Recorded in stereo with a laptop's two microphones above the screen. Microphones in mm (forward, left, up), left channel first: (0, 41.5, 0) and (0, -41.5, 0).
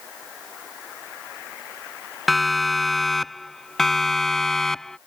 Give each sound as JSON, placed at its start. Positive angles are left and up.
{"t": 2.3, "sound": "a siren", "side_deg": 0}